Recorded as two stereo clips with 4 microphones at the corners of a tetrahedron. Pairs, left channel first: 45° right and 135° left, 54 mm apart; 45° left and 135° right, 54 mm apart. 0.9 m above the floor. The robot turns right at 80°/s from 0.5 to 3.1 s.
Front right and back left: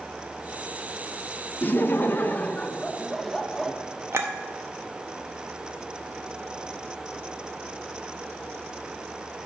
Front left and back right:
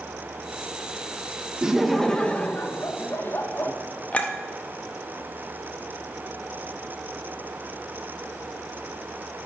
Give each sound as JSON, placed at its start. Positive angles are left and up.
{"t": 1.6, "sound": "laughter", "azimuth_deg": -70, "distance_m": 0.6}
{"t": 4.1, "sound": "a clink", "azimuth_deg": 105, "distance_m": 0.8}